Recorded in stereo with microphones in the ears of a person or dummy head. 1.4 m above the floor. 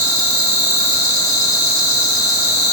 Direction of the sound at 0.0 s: 15° left (ahead or behind).